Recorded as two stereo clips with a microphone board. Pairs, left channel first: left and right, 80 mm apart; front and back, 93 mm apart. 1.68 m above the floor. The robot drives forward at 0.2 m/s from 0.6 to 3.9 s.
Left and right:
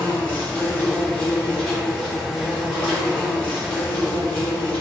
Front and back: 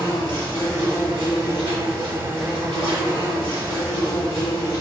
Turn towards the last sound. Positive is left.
turn(degrees=175)